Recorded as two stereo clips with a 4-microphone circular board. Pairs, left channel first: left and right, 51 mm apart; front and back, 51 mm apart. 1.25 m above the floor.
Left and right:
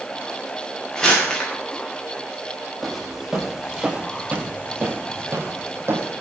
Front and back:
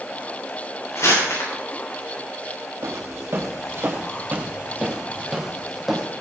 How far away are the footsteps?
About 2.5 m.